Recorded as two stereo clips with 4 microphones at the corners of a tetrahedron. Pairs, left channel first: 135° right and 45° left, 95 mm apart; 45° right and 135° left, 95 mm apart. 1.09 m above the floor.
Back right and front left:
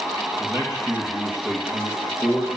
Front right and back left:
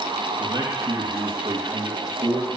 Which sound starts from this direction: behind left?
A man speaking, at 0.4 s.